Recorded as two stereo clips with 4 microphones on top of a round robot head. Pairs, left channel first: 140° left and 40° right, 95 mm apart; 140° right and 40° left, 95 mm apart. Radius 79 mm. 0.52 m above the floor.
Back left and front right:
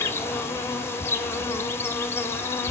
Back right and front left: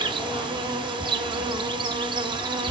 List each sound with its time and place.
0.0 s an insect: 75° left, 1.2 m